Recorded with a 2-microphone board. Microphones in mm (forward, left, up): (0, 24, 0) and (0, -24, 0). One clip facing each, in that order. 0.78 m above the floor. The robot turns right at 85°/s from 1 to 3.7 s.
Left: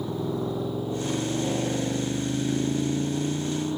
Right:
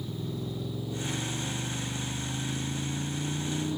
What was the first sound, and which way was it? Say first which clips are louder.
A motorcycle: left 8 dB; 55° left (ahead or behind).